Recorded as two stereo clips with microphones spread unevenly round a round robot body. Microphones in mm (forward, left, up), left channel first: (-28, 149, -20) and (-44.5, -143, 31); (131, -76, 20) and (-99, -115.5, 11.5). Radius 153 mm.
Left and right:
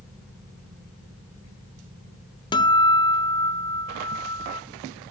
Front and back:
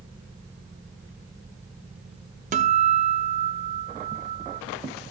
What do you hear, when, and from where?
2.5 s a guitar: 145° left, 0.5 m